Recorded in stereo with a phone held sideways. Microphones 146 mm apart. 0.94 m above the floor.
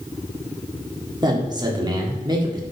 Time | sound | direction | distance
1.2 | a man speaking | 30° right (ahead or behind) | 1.6 m